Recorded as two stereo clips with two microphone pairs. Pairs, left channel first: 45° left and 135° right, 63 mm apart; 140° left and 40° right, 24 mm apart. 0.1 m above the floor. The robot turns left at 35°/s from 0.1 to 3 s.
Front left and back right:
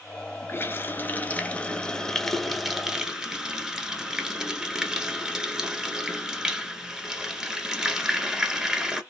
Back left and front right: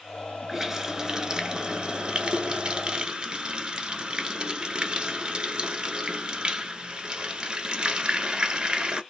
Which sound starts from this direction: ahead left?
A running tap, at 0.5 s.